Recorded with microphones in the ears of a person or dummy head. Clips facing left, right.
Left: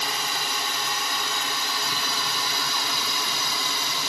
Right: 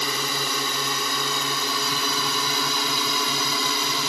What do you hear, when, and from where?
0.0 s a drone: 80° right; by 4.1 s 70° right (ahead or behind)